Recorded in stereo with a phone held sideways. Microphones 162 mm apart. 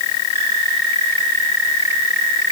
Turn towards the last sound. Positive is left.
No sound to turn to.